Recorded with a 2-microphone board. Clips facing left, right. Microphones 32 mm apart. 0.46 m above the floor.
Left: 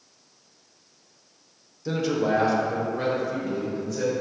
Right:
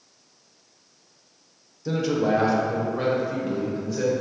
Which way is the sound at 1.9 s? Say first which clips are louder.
Right 1 dB; 5° left (ahead or behind).